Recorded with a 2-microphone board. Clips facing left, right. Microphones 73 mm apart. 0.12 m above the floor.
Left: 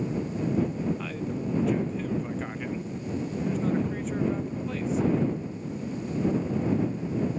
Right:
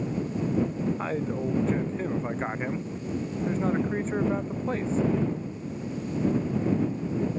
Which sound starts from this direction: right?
A man speaking, at 1.0 s.